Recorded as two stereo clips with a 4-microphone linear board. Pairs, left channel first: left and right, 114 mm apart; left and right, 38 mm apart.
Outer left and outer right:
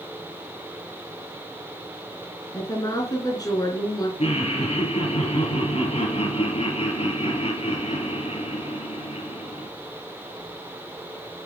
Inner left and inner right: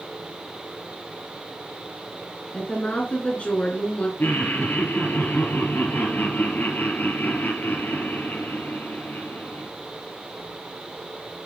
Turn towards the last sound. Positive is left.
turn(degrees=60)  # may be behind; listen again after turning